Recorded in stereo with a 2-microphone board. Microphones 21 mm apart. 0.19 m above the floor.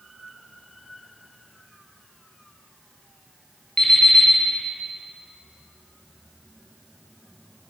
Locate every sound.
3.8 s an alarm clock: 35° left (ahead or behind), 1.8 m